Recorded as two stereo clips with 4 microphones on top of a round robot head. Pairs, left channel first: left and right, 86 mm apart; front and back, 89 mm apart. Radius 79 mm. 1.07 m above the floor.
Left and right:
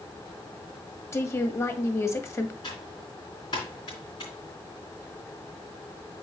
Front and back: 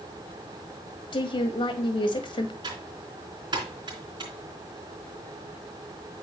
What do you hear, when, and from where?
1.1 s a woman speaking: 30° left, 1.5 m
2.6 s typing on a keyboard: 145° left, 3 m